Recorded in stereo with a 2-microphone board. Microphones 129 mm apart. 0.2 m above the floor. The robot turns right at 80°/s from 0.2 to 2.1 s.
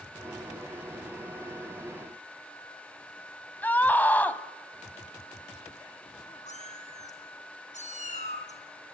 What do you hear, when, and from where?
3.6 s a scream: 15° left (ahead or behind), 1.0 m
6.5 s a cat meowing: 70° left (ahead or behind), 2 m